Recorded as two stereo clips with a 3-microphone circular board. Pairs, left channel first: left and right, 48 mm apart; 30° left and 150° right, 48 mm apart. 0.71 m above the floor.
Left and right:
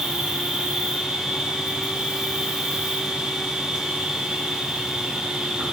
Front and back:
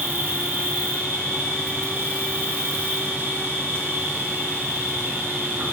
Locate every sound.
0.0 s an insect: 155° right, 0.9 m